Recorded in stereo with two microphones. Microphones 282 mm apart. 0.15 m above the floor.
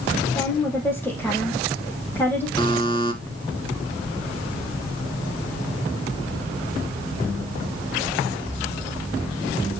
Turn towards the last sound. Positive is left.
turn(degrees=15)  # may be behind; listen again after turning